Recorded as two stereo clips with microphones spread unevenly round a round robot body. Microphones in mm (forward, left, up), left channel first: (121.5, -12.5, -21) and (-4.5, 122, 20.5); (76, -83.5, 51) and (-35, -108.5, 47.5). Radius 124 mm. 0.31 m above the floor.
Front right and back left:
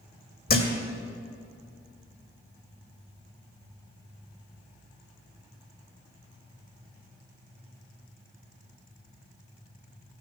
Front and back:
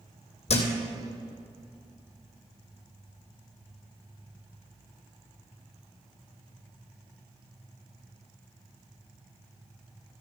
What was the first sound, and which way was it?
A thud, 10° right.